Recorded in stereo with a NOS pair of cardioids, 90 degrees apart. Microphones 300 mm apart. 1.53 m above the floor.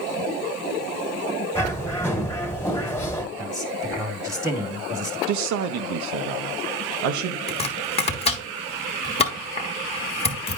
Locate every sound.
1.6 s a bird: 10° left, 1.5 m
3.4 s a man speaking: straight ahead, 1.4 m
5.3 s a man speaking: 70° right, 0.7 m
7.5 s chopping: 20° left, 1.3 m